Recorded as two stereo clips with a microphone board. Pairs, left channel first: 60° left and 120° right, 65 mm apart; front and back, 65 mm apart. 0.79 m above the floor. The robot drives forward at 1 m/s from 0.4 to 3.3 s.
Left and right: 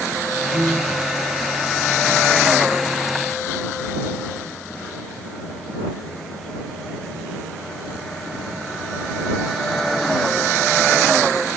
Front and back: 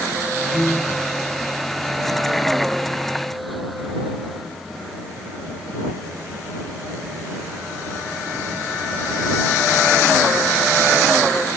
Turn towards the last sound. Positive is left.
turn(degrees=-140)